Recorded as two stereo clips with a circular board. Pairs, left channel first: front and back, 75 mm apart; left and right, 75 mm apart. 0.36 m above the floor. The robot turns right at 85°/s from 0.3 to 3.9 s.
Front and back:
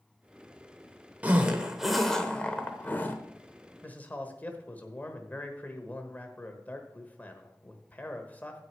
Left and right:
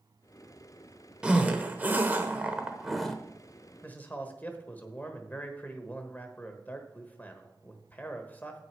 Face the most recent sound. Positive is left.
turn(degrees=45)